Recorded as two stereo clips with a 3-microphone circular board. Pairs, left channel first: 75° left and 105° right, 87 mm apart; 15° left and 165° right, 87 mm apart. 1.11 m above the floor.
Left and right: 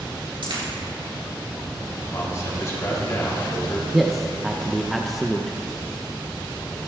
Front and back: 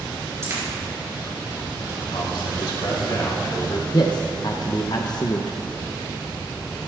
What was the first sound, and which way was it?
A dropped coin, 110° right.